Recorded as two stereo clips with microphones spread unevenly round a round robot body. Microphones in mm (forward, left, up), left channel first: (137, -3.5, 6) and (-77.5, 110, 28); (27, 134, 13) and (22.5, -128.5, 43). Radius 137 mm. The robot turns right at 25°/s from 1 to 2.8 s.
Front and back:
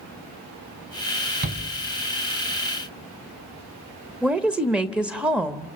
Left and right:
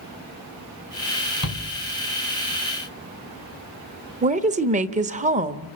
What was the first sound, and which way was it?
A shout, 100° left.